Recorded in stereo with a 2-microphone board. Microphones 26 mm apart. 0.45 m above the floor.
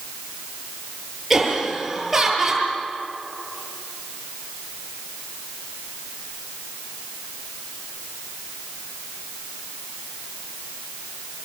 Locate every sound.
1.3 s laughter: 10° right (ahead or behind), 8.5 m